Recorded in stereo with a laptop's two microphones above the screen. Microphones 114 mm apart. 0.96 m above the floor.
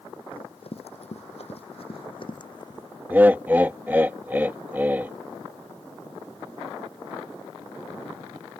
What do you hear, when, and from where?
0.3 s running footsteps: 50° left (ahead or behind); by 2.9 s 35° left (ahead or behind)
3.1 s laughter: 15° right (ahead or behind)